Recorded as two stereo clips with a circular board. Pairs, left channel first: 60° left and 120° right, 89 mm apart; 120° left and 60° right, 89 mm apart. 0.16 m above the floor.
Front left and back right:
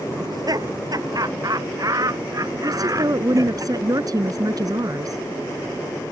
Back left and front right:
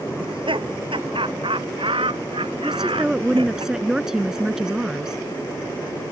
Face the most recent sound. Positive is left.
turn(degrees=-140)